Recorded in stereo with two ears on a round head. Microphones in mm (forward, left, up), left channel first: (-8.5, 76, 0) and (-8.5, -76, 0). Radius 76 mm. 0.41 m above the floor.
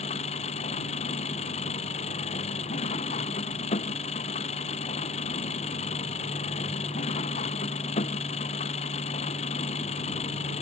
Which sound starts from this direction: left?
An engine running, at 0.0 s.